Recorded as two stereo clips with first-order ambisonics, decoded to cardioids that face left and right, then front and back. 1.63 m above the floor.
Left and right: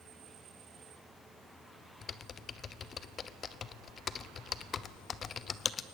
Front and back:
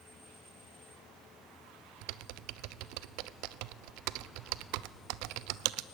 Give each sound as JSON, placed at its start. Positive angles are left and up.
{"t": 2.0, "sound": "typing on a keyboard", "azimuth_deg": 155, "distance_m": 0.8}